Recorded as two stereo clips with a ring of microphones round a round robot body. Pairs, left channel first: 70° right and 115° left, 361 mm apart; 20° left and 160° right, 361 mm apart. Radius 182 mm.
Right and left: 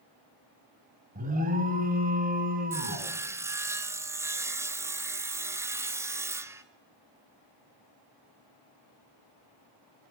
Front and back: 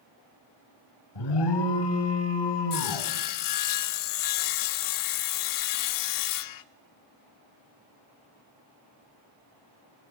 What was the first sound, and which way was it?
An alarm, 45° left.